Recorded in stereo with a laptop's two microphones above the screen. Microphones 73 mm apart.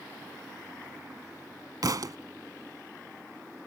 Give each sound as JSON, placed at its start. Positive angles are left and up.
{"t": 1.8, "sound": "a thud", "side_deg": -60}